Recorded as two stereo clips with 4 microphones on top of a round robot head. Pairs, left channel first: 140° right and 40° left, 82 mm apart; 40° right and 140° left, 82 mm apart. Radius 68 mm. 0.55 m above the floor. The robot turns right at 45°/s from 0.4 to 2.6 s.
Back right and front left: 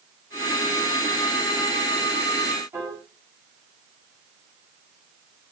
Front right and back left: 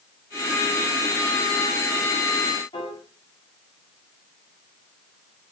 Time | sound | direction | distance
2.7 | a piano | 20° right | 4.5 m